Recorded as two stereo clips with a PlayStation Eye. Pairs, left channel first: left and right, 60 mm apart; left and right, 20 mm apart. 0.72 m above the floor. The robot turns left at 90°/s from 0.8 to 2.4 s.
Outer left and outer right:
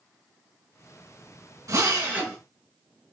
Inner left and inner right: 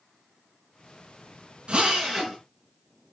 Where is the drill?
115° right, 5 m; by 2.4 s straight behind, 5 m.